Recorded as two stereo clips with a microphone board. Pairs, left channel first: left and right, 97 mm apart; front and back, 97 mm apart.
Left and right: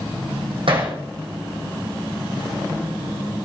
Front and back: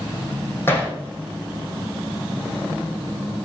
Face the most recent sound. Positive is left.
turn(degrees=-65)